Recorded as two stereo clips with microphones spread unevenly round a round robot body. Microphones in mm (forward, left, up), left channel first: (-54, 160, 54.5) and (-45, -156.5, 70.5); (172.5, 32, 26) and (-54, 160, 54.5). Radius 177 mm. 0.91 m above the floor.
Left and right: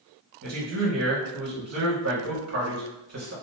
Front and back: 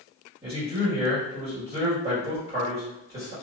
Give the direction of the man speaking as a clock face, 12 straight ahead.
4 o'clock.